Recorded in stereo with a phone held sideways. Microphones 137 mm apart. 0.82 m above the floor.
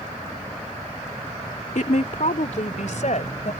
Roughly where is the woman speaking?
Left.